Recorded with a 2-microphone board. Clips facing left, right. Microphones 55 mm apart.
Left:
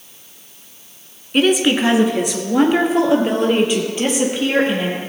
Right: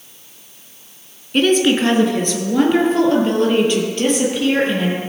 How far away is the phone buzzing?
I don't hear a phone buzzing.